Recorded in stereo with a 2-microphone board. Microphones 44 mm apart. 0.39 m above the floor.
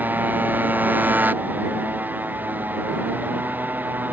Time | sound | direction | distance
0.0 | a motorcycle | 45° right (ahead or behind) | ?